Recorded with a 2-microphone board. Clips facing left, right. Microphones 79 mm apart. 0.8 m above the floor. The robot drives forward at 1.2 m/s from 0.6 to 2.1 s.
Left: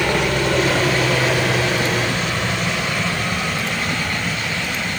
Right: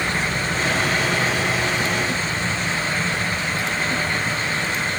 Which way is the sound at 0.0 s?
65° left (ahead or behind).